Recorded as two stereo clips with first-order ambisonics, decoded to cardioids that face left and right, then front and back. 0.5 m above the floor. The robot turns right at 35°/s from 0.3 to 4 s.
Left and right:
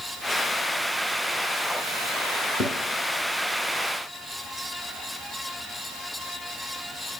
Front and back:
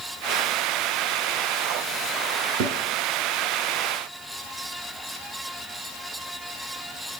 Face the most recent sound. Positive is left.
turn(degrees=-145)